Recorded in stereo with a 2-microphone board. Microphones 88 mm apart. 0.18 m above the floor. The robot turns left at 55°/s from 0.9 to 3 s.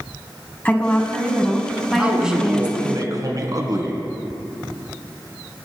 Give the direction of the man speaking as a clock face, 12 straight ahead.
12 o'clock.